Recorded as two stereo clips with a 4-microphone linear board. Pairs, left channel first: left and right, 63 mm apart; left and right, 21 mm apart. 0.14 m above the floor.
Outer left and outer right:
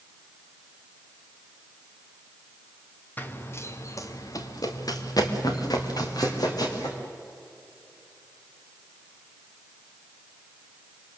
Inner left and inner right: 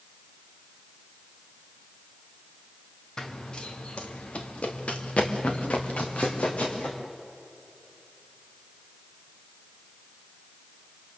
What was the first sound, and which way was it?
Running footsteps, 30° left (ahead or behind).